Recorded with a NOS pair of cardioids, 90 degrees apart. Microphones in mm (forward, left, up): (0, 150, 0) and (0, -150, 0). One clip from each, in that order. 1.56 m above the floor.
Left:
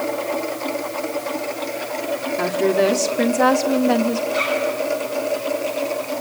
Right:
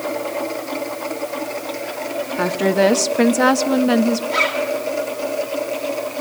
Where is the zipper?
65° right, 7.5 m.